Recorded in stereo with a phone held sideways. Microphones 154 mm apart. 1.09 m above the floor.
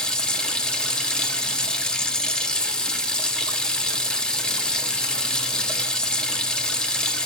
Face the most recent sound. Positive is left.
turn(degrees=5)  # may be behind; listen again after turning